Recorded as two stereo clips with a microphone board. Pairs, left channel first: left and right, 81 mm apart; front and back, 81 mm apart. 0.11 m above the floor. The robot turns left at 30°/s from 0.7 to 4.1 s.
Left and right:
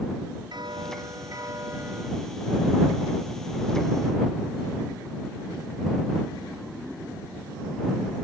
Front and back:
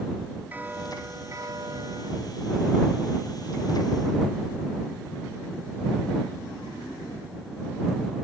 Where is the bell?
115° right; by 2.1 s 155° right.